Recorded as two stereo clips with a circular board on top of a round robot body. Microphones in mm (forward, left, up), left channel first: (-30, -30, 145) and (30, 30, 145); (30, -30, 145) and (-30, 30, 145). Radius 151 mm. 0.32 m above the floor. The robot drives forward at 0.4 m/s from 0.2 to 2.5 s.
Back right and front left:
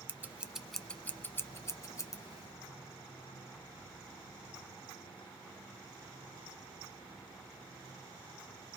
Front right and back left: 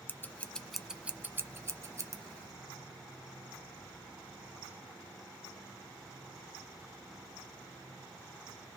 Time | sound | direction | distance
0.1 | scissors | 5° right | 0.5 m